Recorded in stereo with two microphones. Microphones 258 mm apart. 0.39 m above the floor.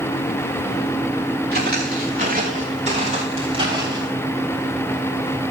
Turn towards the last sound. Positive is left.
turn(degrees=-15)  # may be behind; listen again after turning